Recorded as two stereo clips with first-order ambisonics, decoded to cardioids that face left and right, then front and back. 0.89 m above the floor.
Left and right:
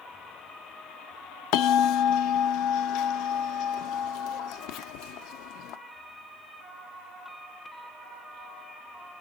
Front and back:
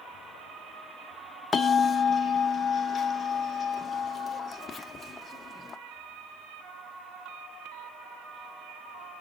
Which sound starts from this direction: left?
A bell, at 1.5 s.